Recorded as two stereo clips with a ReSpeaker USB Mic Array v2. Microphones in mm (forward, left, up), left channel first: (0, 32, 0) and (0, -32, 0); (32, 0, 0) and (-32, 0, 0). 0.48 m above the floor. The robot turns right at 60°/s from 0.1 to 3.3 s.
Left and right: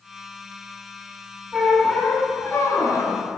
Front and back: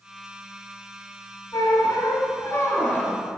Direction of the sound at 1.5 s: 15° right.